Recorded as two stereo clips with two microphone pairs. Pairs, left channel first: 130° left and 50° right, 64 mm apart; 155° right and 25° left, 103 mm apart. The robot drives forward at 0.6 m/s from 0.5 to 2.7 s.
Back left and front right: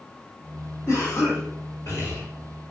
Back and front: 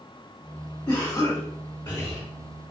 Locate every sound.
0.9 s a cough: 165° left, 1.7 m; by 2.2 s 170° left, 2.5 m